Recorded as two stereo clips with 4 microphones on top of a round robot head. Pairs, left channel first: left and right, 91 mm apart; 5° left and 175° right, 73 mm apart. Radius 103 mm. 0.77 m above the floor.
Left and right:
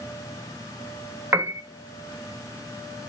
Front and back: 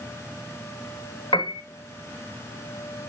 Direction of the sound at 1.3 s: 30° right.